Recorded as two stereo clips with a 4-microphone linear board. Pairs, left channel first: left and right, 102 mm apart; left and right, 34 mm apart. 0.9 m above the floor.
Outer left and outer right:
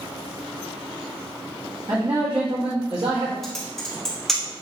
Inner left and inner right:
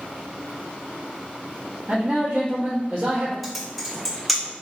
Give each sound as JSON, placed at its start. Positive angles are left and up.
{"t": 1.9, "sound": "a man speaking", "side_deg": -40, "distance_m": 1.1}
{"t": 3.4, "sound": "typing on a keyboard", "side_deg": 0, "distance_m": 1.3}